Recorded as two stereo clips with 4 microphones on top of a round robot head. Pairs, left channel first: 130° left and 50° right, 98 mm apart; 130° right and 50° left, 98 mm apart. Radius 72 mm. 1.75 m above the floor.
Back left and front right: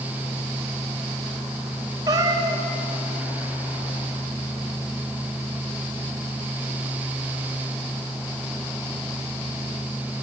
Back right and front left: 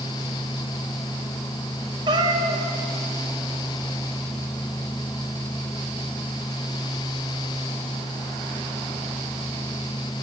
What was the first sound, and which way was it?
A cat meowing, 5° left.